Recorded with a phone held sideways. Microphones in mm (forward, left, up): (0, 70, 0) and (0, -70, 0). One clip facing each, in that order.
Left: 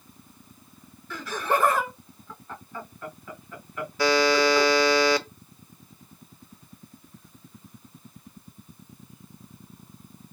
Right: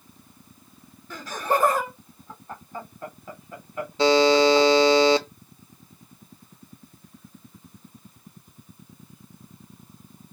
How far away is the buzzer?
About 0.5 m.